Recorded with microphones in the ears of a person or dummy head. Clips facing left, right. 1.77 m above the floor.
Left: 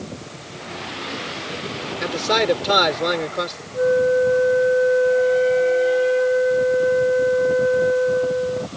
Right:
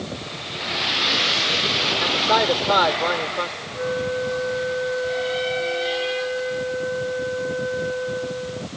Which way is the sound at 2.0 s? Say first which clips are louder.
Left 2 dB; 35° left (ahead or behind).